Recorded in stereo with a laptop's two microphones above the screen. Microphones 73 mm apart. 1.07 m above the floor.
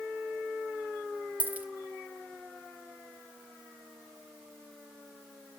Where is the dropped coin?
20° right (ahead or behind), 1.3 m.